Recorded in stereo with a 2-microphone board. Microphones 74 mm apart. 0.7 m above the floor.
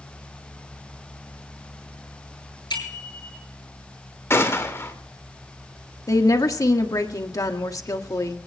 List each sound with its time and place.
2.7 s a bicycle bell: 85° left, 8.5 m
4.3 s a gunshot: 35° left (ahead or behind), 2.5 m
6.1 s a woman speaking: 55° left (ahead or behind), 1.5 m